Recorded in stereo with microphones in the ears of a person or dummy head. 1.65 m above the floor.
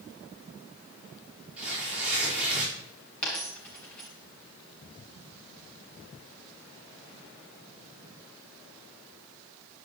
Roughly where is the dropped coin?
Centre.